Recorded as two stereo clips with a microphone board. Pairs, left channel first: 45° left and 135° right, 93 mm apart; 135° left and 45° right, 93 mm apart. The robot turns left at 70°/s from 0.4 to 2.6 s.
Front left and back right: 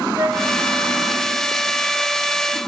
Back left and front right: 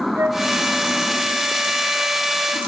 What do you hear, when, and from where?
0.2 s a flute: 90° right, 1.8 m